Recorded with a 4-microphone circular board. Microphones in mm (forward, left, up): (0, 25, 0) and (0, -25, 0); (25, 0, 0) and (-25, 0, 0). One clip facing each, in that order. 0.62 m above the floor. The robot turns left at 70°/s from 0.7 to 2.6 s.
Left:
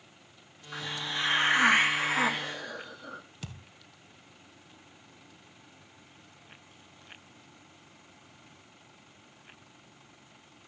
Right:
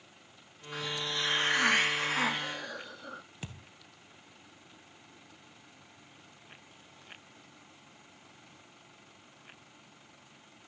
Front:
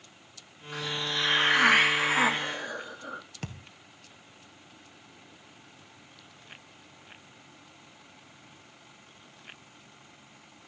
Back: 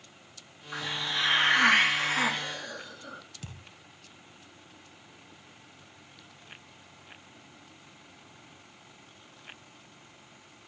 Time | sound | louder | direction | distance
0.7 | a hiss | left 1 dB, even | 140° left | 1.1 m
3.4 | a thud | even, front 5 dB | 25° right | 1.1 m